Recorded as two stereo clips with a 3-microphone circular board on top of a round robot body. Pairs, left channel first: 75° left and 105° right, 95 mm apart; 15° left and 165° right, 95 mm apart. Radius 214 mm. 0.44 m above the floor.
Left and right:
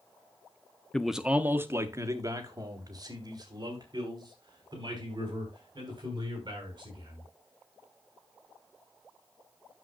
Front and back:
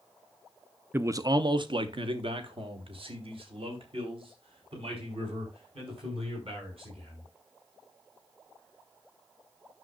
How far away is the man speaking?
About 0.7 m.